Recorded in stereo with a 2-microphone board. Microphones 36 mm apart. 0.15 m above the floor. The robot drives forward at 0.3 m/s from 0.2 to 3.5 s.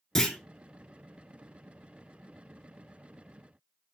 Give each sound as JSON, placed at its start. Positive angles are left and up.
{"t": 0.1, "sound": "a clunk", "side_deg": 15, "distance_m": 0.5}